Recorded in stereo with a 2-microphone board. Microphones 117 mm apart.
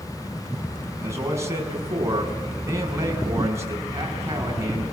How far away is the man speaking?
About 6 m.